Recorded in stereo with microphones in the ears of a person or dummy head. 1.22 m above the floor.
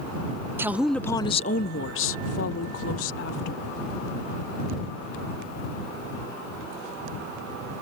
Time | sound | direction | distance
0.6 | a woman speaking | 15° right (ahead or behind) | ?